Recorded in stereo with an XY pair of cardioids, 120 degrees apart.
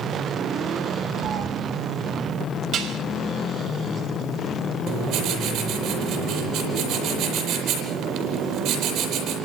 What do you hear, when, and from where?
1.2 s a cat meowing: 60° right, 4 m
2.7 s dishes clattering: 55° right, 4.5 m
4.9 s writing: 70° right, 9 m